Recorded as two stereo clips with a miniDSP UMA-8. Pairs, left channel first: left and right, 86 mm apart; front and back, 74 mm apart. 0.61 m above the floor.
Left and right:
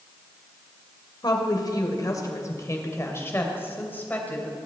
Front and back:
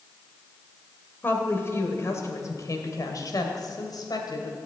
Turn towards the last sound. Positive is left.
turn(degrees=20)